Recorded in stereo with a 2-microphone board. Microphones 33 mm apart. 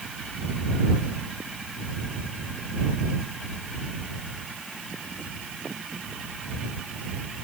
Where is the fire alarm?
No fire alarm in this recording.